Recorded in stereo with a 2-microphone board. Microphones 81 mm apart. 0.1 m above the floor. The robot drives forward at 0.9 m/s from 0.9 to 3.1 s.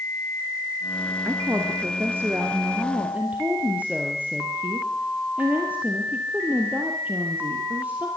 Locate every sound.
1.2 s a woman speaking: 30° right (ahead or behind), 1.7 m; by 8.1 s 20° right (ahead or behind), 2.5 m